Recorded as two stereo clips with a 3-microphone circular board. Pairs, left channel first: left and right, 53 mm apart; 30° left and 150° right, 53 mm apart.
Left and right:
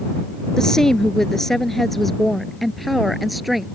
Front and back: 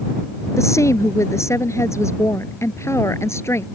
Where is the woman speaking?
10° left; by 3.7 s 5° right.